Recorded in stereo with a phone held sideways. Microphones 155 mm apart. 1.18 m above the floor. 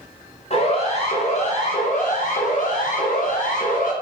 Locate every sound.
0.5 s a siren: 45° left (ahead or behind), 8 m; by 3.9 s 65° left (ahead or behind), 8.5 m